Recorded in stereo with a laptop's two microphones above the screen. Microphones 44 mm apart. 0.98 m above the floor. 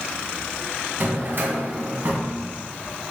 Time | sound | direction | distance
1.0 | a drawer | 50° right (ahead or behind) | 2 m